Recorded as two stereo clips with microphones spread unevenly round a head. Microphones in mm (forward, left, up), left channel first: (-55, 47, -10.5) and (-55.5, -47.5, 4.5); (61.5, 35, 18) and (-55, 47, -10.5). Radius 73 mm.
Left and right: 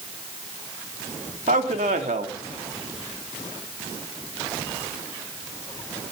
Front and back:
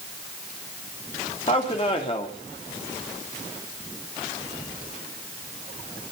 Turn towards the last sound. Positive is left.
turn(degrees=-65)